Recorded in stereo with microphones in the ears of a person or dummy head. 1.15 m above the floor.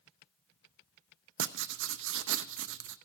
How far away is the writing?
About 0.6 m.